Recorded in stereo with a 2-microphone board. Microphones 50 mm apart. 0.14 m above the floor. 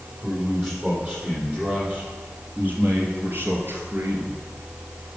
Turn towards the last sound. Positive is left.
turn(degrees=-55)  # may be behind; listen again after turning